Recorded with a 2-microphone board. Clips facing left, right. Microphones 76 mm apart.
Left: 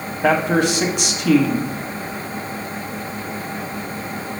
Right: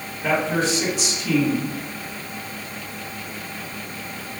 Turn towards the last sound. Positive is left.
turn(degrees=60)  # may be behind; listen again after turning